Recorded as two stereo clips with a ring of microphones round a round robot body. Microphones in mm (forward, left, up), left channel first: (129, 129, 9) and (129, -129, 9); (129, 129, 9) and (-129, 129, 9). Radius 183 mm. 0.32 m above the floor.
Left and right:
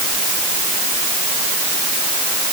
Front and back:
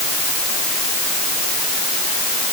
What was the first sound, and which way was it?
Only background noise.